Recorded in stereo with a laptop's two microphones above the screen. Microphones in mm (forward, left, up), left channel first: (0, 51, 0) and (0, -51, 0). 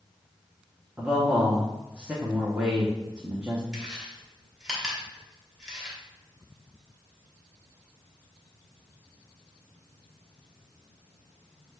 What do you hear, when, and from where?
1.0 s a man speaking: 10° right (ahead or behind), 0.6 m
3.7 s chewing: 5° right (ahead or behind), 1.0 m